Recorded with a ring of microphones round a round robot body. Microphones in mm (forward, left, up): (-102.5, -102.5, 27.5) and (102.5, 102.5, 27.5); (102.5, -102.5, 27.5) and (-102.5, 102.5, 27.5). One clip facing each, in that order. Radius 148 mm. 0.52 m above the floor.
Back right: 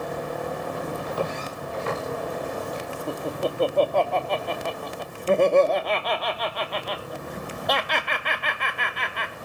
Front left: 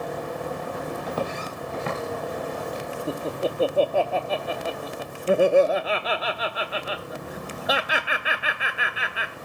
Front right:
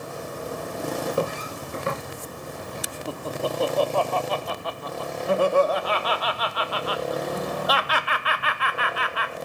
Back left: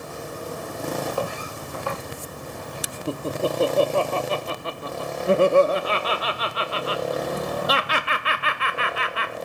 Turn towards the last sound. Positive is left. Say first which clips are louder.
# even, back left 4 dB
turn(degrees=120)